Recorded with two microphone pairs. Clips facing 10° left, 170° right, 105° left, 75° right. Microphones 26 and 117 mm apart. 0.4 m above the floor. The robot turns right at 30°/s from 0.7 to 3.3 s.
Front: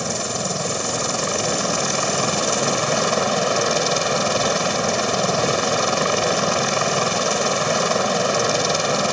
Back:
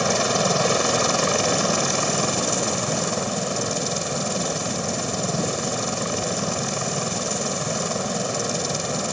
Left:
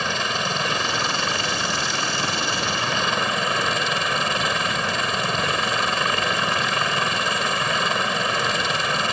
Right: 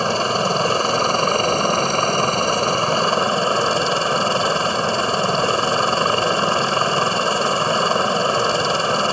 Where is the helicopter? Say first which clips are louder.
Back 4 dB, right 7 dB; 110° right; by 9.1 s 30° right.